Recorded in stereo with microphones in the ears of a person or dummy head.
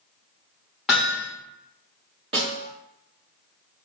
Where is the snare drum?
35° right (ahead or behind), 1.4 m.